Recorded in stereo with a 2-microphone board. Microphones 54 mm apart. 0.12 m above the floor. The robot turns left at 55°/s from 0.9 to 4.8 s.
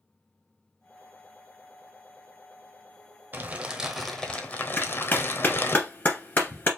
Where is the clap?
35° left (ahead or behind), 1.6 m.